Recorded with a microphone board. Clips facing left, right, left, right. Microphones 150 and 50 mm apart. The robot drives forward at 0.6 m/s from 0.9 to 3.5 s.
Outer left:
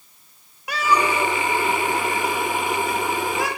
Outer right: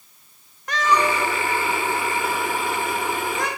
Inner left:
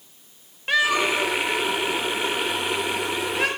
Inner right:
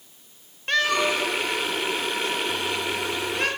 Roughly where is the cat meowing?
Centre.